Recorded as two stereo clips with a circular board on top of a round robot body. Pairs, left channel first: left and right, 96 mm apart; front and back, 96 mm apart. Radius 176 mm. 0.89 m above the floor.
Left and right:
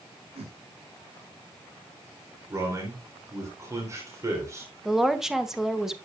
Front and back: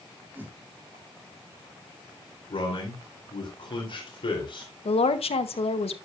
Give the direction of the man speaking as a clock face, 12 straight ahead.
1 o'clock.